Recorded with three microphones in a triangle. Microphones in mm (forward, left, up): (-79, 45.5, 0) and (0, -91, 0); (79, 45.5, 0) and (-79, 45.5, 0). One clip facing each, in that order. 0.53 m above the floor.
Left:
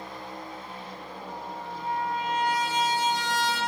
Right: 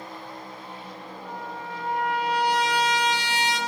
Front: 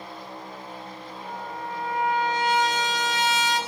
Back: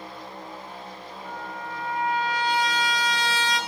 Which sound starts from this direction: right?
A trumpet, at 1.2 s.